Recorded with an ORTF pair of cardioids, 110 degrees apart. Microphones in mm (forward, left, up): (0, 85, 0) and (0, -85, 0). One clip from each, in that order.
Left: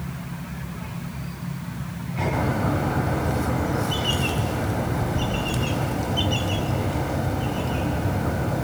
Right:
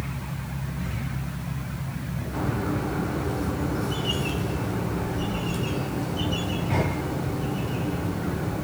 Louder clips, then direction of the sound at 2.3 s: Left 2 dB; 60° left.